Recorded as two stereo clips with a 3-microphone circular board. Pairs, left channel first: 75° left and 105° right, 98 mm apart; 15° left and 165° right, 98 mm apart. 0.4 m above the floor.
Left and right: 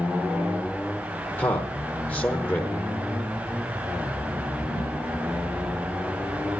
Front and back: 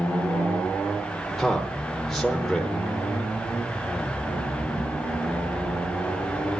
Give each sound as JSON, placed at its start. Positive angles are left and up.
{"t": 1.4, "sound": "a man speaking", "azimuth_deg": 100, "distance_m": 1.0}